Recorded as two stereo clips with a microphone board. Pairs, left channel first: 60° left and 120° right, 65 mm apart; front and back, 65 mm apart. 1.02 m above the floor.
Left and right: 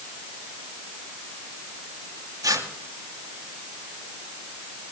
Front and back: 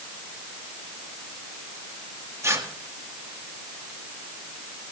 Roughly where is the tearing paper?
Behind right.